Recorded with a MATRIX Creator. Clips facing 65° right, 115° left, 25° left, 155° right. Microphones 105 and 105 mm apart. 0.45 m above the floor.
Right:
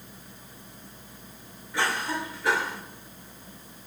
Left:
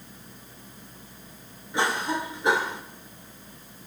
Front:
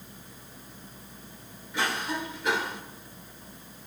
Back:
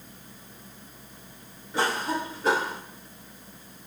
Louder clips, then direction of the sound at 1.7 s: Left 2 dB, back 4 dB; 175° left.